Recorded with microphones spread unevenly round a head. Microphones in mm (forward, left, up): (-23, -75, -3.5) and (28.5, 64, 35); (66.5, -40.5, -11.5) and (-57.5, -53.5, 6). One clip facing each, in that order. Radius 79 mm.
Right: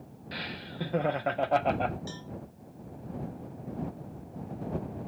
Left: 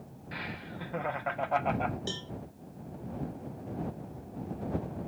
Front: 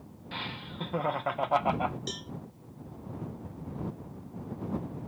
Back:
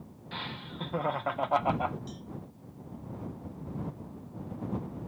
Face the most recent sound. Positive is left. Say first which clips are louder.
# left 3 dB, front 3 dB
turn(degrees=10)